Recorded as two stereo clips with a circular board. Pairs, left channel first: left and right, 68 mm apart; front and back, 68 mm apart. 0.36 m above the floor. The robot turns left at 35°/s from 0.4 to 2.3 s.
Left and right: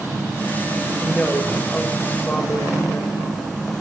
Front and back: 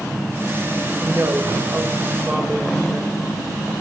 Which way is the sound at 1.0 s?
175° left.